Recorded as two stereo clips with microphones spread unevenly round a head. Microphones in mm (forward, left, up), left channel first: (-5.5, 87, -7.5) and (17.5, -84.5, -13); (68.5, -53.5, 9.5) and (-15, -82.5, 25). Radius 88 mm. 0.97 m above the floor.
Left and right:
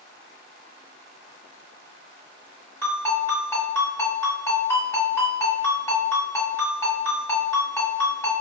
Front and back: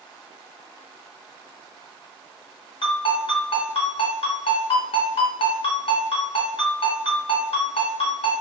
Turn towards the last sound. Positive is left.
turn(degrees=20)